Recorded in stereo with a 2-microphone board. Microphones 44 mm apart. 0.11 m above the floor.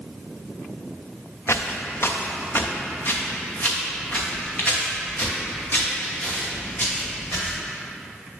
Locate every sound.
1.5 s footsteps: 75° left (ahead or behind), 0.6 m; by 7.6 s 35° left (ahead or behind), 4 m